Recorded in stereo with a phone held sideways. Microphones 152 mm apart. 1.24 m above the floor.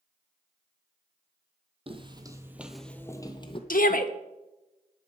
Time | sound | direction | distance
1.9 | footsteps | 40° right (ahead or behind) | 1.6 m
3.7 | a shout | 65° left (ahead or behind) | 1.3 m